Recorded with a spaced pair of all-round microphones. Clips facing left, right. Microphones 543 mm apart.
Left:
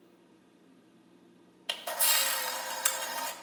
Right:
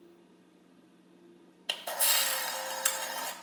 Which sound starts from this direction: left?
A camera shutter, at 1.7 s.